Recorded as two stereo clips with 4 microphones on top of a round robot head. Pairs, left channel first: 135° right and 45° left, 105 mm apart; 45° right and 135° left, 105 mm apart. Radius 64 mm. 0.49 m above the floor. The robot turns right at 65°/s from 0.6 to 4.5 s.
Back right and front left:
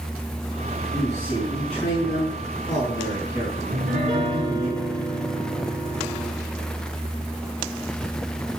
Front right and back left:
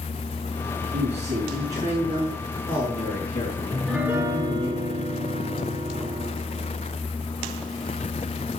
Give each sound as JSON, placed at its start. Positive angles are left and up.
{"t": 0.9, "sound": "a man speaking", "azimuth_deg": 145, "distance_m": 5.5}
{"t": 3.7, "sound": "a piano", "azimuth_deg": 40, "distance_m": 3.5}